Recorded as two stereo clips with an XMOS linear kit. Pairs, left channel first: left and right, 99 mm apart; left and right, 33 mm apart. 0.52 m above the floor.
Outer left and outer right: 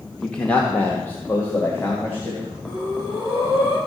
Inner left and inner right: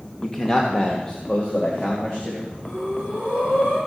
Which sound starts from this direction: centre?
A man speaking, at 0.2 s.